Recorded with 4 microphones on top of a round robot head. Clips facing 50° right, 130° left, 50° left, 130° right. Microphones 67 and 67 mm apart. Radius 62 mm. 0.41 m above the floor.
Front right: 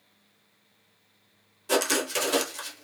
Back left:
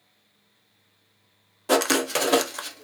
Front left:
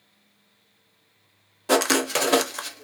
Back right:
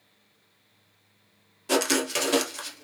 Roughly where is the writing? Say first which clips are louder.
Back left 4 dB, front left 4 dB; left.